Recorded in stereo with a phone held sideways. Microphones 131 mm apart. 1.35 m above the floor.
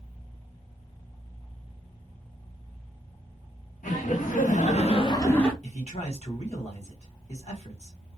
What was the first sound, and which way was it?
Laughter, 80° left.